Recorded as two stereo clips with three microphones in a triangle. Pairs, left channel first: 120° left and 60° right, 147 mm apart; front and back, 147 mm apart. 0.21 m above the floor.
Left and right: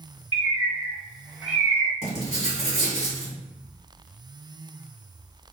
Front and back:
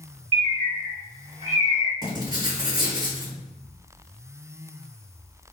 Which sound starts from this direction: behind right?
A bird, at 0.3 s.